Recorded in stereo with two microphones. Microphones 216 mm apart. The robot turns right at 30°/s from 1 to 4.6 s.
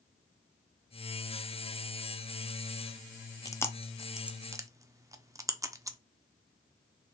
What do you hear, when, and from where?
3.5 s chewing: 15° left (ahead or behind), 0.5 m; by 6.0 s 15° right (ahead or behind), 0.5 m